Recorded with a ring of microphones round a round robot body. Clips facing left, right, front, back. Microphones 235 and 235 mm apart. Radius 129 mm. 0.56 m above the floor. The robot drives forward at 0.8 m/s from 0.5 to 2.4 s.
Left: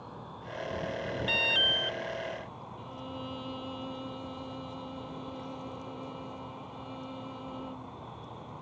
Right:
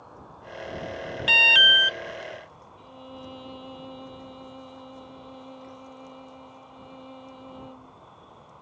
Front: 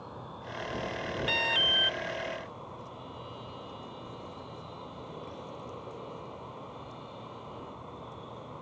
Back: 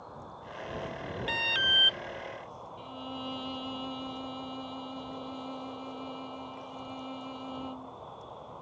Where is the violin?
170° left.